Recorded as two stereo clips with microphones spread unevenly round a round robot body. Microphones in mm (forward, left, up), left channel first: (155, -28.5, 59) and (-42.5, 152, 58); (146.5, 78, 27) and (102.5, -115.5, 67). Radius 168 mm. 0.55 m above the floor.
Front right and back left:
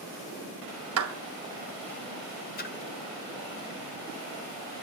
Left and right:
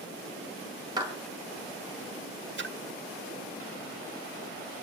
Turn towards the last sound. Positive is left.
turn(degrees=-90)